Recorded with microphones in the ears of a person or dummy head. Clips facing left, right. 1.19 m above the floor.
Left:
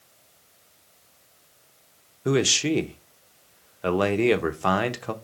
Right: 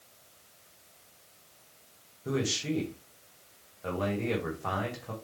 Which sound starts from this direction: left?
A man speaking, at 2.2 s.